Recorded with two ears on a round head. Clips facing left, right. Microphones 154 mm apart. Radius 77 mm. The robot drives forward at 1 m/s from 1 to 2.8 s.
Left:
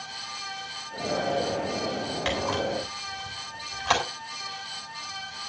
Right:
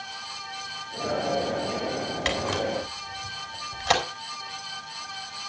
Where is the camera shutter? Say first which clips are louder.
Even; 25° right (ahead or behind), 7 m; by 4.0 s 20° right (ahead or behind), 7.5 m.